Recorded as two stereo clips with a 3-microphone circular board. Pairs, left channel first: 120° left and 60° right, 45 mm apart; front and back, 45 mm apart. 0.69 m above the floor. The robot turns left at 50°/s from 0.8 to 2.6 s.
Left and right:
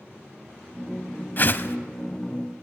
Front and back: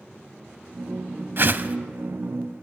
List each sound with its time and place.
1.4 s a whoosh: 155° left, 0.7 m; by 1.8 s 135° left, 0.7 m